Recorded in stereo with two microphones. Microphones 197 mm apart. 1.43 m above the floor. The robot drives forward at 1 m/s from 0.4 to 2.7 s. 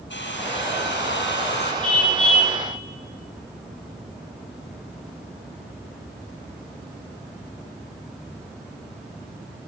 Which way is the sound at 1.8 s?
5° left (ahead or behind).